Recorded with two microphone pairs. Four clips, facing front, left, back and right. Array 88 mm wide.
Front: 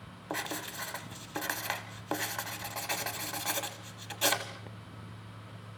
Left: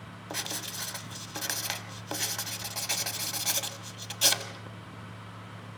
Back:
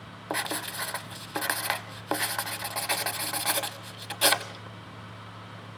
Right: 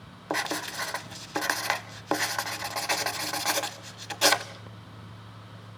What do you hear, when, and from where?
0.3 s writing: 120° right, 1.0 m